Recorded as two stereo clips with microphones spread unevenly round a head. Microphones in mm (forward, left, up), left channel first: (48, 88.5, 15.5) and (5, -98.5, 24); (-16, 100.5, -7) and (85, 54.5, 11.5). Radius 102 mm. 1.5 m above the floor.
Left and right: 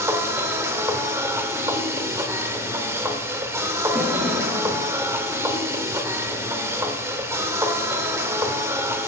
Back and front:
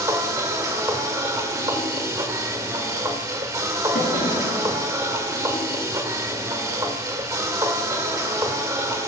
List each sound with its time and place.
0.0 s a machine running: 40° right, 1.4 m
3.9 s a drawer: straight behind, 7 m